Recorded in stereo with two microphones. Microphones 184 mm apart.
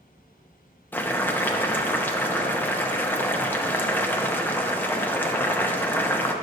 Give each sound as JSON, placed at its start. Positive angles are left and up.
{"t": 0.9, "sound": "boiling", "side_deg": 10, "distance_m": 0.6}